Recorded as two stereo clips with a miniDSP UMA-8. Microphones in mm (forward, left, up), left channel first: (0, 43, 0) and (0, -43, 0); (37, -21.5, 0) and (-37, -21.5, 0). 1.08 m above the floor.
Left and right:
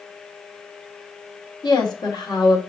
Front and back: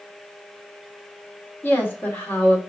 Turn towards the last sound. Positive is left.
turn(degrees=65)